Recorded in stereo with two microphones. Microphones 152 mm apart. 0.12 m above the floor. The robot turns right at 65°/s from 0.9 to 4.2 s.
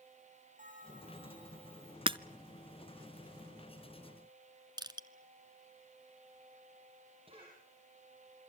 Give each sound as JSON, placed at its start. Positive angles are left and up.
{"t": 0.6, "sound": "a bell", "azimuth_deg": -60, "distance_m": 9.0}
{"t": 2.1, "sound": "breaking glass", "side_deg": -35, "distance_m": 0.6}
{"t": 4.8, "sound": "crushing", "side_deg": -30, "distance_m": 1.2}
{"t": 7.3, "sound": "a cough", "side_deg": -35, "distance_m": 6.0}